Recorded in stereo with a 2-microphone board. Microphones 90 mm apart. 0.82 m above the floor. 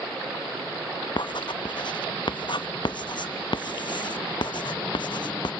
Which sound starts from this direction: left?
Writing, at 1.2 s.